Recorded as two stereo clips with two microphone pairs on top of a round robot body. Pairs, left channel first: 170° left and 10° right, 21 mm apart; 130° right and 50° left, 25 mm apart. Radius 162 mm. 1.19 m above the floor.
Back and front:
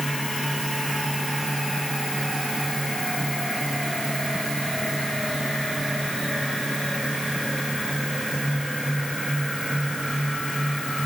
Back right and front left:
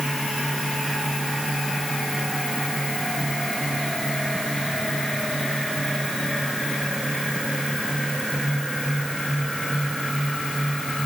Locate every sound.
Only background noise.